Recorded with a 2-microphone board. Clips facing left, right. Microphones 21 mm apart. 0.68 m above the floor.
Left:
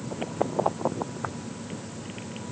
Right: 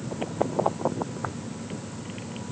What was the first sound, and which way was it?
Only background noise.